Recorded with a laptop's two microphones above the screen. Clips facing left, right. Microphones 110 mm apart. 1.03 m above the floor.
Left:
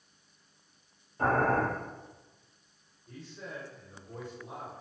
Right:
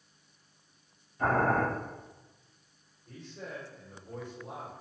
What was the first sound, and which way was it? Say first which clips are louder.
Boiling: even; 45° left (ahead or behind).